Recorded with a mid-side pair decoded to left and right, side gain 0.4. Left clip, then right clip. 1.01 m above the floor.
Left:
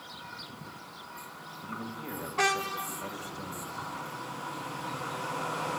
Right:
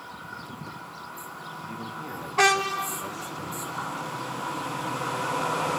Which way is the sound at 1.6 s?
Straight ahead.